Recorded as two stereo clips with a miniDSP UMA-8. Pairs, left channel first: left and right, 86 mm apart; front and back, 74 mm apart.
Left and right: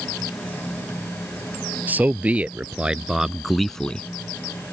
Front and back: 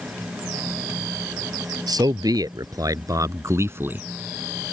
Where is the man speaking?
160° right; by 4.1 s 145° left.